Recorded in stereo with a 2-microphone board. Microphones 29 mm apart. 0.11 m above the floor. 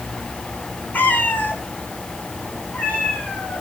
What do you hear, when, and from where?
0.9 s a cat meowing: 80° left, 1.9 m; by 3.6 s 75° left (ahead or behind), 5.5 m